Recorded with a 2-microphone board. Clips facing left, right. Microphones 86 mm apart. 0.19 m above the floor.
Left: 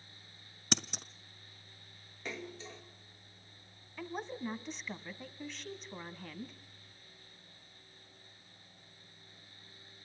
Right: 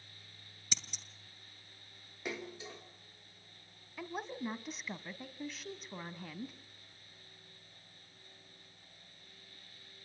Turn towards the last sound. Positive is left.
turn(degrees=-5)  # may be behind; listen again after turning